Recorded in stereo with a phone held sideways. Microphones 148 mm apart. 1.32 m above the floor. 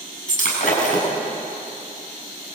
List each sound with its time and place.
0.3 s breaking glass: 65° left (ahead or behind), 7.5 m